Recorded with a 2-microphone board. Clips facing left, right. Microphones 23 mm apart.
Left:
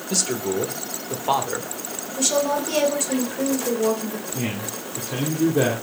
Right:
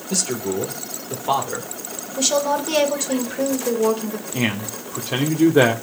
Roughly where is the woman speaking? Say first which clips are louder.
Right 2 dB; centre.